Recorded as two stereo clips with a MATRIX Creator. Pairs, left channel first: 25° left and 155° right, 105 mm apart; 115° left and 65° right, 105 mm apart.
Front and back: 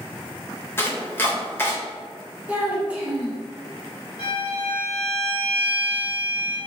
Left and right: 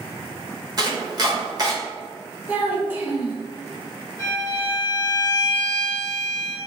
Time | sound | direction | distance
0.8 | chopping | 35° right | 0.7 m
2.5 | a child speaking | 100° right | 0.8 m
4.2 | a violin | 20° right | 1.7 m